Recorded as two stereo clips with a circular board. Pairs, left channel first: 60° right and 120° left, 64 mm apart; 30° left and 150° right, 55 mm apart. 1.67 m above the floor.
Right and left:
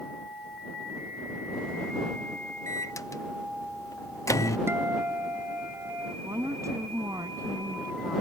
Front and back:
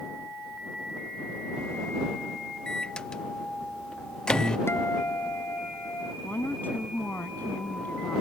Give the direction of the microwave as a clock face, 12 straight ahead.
1 o'clock.